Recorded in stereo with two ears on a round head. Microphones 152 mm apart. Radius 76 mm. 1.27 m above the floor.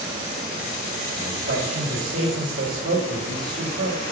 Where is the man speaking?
65° right (ahead or behind), 3.5 m.